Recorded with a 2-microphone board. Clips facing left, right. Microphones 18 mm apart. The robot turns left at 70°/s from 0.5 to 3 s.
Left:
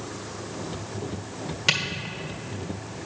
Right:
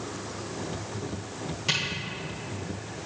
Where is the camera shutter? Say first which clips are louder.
Left 4 dB; 35° left (ahead or behind), 1.2 m; by 3.0 s 45° left (ahead or behind), 1.2 m.